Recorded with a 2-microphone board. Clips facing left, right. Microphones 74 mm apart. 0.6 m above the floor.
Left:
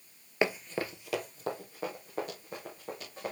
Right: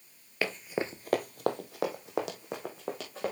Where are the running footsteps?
20° left (ahead or behind), 0.8 m; by 3.3 s 80° right, 4 m.